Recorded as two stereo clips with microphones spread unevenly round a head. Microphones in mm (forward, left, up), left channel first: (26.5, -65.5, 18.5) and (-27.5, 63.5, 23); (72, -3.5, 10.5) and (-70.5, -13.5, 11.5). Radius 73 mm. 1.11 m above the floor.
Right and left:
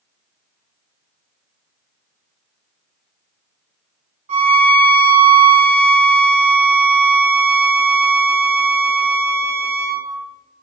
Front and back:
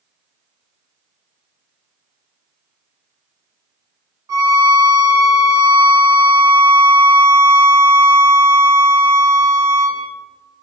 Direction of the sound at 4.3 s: 120° left.